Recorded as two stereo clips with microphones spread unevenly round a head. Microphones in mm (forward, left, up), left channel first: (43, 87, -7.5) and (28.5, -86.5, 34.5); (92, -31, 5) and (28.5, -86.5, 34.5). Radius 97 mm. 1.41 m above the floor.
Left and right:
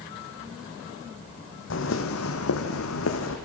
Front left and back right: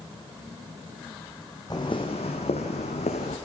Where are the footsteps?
120° left, 3.5 m; by 3.4 s 80° left, 4.5 m.